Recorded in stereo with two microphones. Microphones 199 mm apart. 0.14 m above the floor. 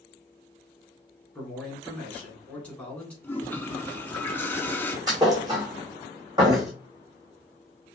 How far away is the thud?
About 1.6 m.